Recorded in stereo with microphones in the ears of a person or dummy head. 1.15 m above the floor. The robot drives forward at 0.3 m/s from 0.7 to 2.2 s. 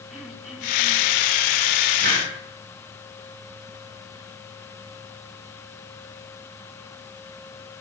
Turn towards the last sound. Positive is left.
turn(degrees=-45)  # may be behind; listen again after turning